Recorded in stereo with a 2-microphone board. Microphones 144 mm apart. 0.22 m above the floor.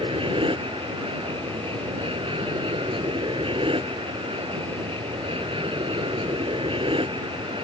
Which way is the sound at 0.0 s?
40° right (ahead or behind).